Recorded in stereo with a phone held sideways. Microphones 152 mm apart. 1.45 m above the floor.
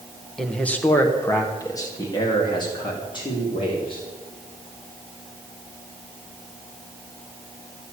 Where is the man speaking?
5° left (ahead or behind), 1.4 m; by 4.1 s 35° left (ahead or behind), 4.5 m.